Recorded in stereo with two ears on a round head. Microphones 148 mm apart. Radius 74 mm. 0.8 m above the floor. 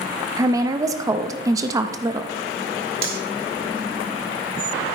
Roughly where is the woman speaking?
Right.